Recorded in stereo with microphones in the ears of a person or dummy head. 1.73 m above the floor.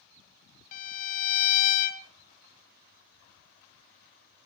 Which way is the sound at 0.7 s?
50° left (ahead or behind).